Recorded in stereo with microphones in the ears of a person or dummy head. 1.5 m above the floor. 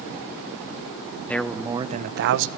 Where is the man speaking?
10° left (ahead or behind), 1.5 m; by 2.5 s 65° right (ahead or behind), 1.3 m.